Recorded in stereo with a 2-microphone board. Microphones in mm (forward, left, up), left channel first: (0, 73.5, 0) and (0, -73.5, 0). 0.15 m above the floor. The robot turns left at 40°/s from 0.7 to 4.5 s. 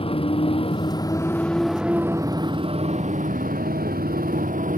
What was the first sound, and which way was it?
A motorcycle, 40° left.